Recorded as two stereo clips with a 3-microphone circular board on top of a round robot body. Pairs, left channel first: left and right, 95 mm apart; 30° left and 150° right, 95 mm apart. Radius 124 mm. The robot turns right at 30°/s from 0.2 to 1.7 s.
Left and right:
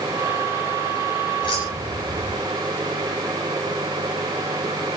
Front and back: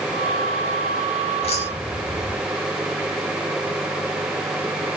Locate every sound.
1.4 s keys jangling: 45° left, 5.5 m; by 2.4 s 55° left, 5.5 m